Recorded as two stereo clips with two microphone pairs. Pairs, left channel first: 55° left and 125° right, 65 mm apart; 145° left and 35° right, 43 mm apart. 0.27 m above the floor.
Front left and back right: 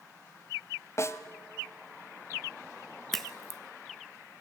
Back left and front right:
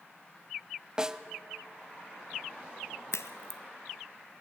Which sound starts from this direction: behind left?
A crack, at 3.1 s.